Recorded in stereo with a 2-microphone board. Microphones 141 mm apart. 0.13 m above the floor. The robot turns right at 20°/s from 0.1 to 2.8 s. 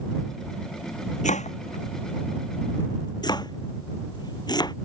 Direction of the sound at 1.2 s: 60° left (ahead or behind).